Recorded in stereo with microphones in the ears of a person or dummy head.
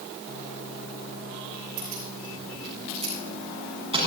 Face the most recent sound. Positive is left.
turn(degrees=-15)  # may be behind; listen again after turning